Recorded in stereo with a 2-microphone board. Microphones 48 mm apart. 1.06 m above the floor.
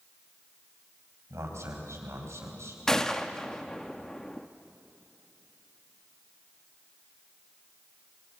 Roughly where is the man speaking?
Right.